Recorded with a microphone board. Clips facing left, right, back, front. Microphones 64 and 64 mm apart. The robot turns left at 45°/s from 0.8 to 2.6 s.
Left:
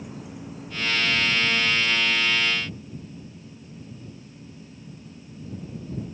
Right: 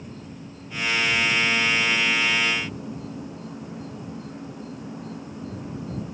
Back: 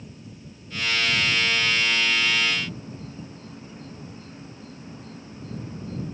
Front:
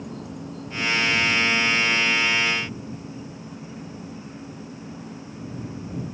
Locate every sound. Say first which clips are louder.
0.0 s an insect: left 1 dB, front 9 dB; 5° left; by 6.1 s 75° right